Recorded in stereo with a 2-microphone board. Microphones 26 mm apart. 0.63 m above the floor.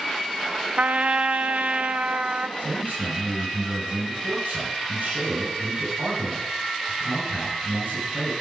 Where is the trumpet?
65° right (ahead or behind), 0.6 m.